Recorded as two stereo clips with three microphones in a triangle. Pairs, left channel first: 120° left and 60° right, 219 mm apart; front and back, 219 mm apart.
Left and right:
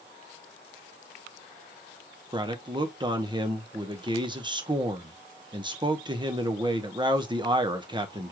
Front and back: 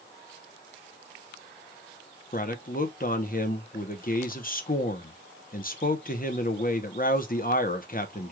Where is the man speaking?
5° right, 0.8 m.